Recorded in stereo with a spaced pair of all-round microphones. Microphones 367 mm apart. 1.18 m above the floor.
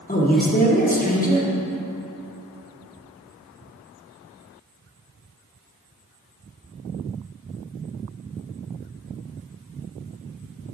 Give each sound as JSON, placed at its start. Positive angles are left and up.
{"t": 0.1, "sound": "a man speaking", "side_deg": 20, "distance_m": 1.1}